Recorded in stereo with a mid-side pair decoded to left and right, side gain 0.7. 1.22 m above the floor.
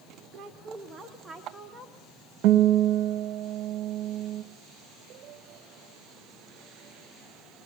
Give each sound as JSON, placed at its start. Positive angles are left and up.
{"t": 0.3, "sound": "a woman speaking", "azimuth_deg": -50, "distance_m": 1.2}
{"t": 2.4, "sound": "a guitar", "azimuth_deg": -65, "distance_m": 1.0}